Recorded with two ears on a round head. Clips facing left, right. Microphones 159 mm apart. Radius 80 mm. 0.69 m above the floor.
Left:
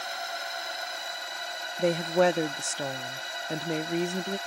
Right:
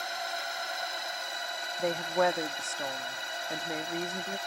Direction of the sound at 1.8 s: 35° left (ahead or behind).